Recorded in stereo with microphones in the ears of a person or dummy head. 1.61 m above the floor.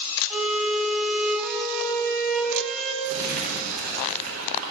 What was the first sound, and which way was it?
A violin, 5° right (ahead or behind).